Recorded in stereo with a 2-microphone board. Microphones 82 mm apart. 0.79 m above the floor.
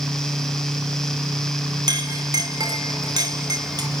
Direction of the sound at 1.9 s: 55° right (ahead or behind).